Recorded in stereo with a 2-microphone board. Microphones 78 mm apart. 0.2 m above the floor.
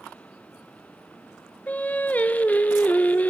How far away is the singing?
About 0.8 m.